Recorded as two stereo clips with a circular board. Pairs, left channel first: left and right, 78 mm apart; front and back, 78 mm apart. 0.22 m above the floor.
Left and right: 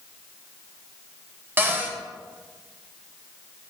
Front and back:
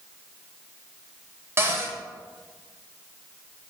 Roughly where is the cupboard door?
Behind right.